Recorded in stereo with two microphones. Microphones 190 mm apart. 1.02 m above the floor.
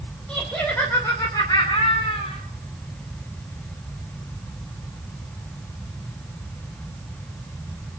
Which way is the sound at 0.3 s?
5° left (ahead or behind).